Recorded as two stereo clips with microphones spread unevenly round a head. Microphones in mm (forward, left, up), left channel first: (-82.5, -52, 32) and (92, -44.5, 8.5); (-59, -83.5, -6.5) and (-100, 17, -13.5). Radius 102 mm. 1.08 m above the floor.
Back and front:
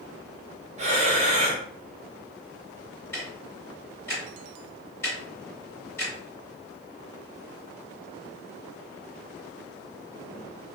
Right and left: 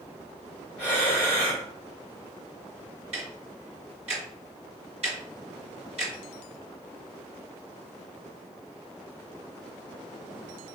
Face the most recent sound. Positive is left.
turn(degrees=110)